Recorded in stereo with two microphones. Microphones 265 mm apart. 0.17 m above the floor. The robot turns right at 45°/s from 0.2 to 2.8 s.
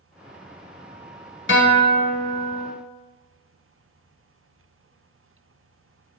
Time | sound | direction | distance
1.5 | a guitar | 85° left | 0.5 m